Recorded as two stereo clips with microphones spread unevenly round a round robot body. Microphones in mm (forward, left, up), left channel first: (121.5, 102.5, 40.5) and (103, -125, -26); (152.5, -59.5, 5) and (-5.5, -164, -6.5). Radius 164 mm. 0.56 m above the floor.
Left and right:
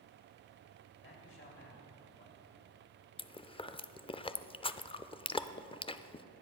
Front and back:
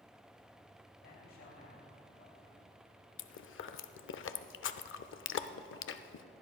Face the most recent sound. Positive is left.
turn(degrees=15)